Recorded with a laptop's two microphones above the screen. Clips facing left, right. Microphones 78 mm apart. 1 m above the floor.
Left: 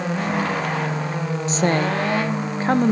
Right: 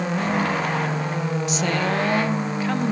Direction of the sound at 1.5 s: 35° left (ahead or behind).